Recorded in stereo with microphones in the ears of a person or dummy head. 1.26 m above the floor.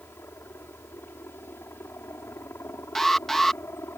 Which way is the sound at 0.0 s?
10° left (ahead or behind).